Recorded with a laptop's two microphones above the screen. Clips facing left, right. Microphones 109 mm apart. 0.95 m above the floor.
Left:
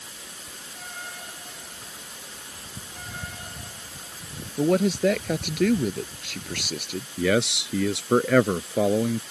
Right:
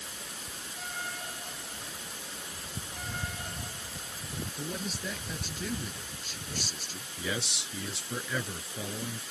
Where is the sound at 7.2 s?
75° left (ahead or behind).